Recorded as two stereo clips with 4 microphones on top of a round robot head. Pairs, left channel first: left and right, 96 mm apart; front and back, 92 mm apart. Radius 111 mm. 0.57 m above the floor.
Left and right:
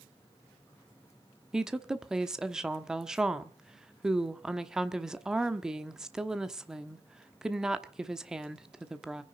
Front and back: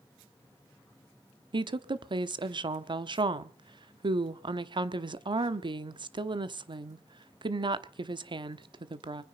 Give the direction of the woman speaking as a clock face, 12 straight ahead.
6 o'clock.